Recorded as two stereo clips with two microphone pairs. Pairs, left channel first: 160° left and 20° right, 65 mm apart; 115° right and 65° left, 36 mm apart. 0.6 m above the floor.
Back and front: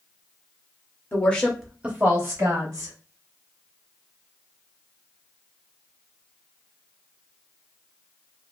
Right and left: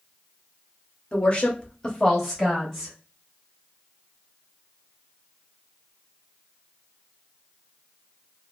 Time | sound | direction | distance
1.1 | a woman speaking | 150° right | 0.7 m